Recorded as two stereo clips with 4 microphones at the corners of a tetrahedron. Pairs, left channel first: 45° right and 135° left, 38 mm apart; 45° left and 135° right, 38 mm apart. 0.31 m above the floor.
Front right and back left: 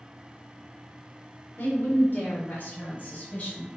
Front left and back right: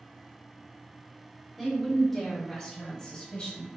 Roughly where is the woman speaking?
Ahead right.